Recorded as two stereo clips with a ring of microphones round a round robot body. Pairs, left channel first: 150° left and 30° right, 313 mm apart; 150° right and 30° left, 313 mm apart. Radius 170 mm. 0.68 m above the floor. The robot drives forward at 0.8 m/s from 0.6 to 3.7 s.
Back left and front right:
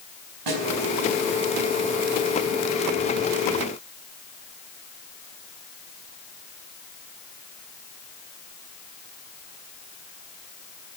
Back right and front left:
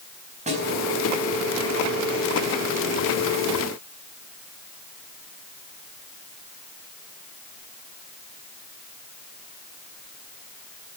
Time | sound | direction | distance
0.5 | a snare drum | 40° right | 4.5 m